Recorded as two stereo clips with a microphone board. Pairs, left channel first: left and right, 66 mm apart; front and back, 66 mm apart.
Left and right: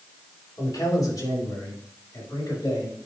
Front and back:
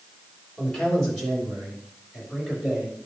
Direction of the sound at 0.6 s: 80° left.